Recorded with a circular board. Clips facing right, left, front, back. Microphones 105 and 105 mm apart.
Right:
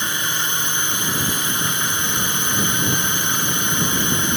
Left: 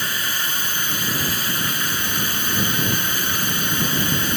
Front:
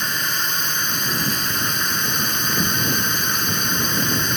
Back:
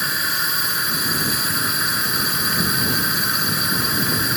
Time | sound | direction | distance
0.0 | a drone | 100° right | ?